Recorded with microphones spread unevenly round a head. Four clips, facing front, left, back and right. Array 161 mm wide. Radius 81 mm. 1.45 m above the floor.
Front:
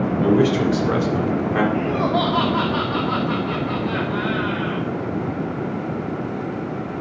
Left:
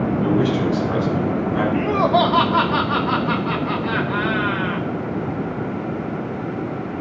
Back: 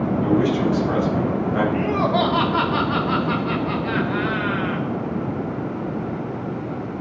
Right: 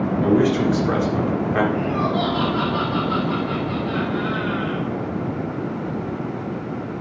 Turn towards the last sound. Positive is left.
turn(degrees=105)